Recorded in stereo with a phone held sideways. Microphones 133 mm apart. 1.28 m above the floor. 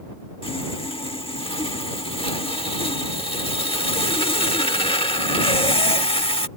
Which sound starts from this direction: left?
Sawing, at 0.4 s.